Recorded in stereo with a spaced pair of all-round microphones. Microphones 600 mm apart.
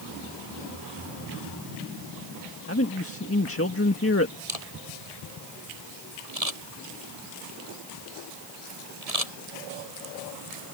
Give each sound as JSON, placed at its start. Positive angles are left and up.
{"t": 2.7, "sound": "a man speaking", "side_deg": 20}
{"t": 4.5, "sound": "a camera shutter", "side_deg": -75}